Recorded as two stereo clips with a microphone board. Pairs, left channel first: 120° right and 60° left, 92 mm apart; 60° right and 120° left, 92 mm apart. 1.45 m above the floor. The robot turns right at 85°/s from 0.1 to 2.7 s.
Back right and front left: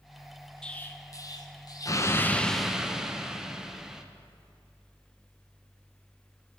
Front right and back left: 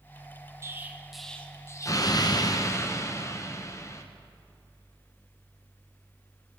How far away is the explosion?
About 0.6 m.